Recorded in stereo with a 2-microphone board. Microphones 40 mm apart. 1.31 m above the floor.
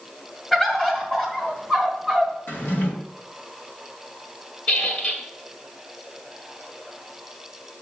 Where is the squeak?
35° left (ahead or behind), 1.5 m.